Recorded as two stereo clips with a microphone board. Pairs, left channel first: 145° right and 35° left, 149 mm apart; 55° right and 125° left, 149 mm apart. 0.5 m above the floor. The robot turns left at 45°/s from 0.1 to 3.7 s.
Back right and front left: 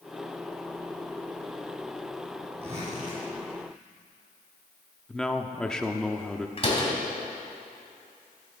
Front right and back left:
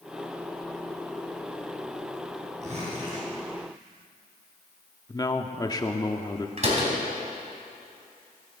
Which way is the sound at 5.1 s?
65° right.